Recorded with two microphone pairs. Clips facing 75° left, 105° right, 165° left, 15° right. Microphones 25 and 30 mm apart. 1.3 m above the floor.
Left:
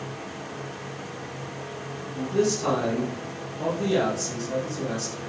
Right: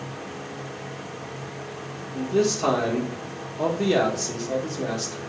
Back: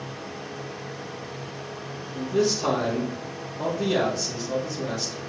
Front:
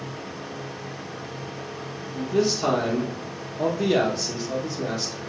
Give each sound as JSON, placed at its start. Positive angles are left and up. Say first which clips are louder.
{"t": 2.1, "sound": "a man speaking", "louder": "right 2 dB, front 1 dB", "azimuth_deg": -80, "distance_m": 1.1}